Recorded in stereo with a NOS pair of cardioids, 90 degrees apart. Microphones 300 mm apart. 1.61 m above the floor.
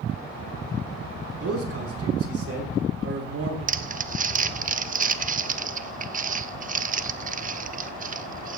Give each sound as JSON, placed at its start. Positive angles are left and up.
{"t": 1.4, "sound": "a man speaking", "azimuth_deg": -50, "distance_m": 5.5}
{"t": 3.7, "sound": "crumpling", "azimuth_deg": -25, "distance_m": 0.7}